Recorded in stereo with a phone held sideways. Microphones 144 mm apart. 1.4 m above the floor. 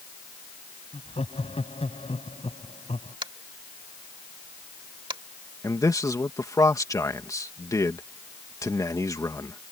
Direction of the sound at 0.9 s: 45° left (ahead or behind).